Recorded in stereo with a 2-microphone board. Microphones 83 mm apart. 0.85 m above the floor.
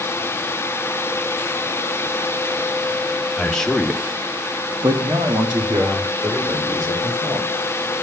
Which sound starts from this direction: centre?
A man speaking, at 3.4 s.